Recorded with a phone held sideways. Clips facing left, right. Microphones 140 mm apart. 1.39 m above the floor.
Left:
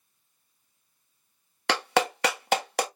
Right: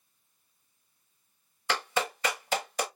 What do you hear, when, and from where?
1.7 s a clap: 75° left (ahead or behind), 1.0 m